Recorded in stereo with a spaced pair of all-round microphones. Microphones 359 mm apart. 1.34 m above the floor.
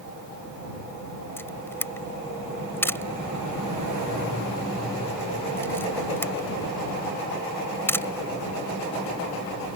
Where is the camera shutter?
5° left (ahead or behind).